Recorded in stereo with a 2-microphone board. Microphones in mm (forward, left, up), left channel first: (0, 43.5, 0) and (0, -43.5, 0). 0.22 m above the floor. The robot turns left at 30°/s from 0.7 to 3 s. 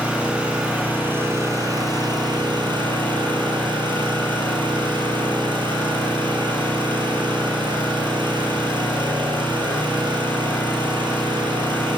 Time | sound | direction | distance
0.0 | an engine running | 15° right | 4 m